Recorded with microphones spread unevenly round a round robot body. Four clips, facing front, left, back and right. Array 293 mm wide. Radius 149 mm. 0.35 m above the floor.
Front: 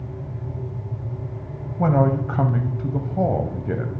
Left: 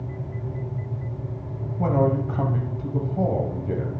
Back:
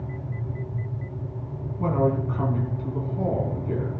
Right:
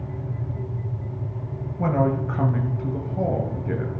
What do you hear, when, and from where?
1.8 s a man speaking: 5° right, 1.9 m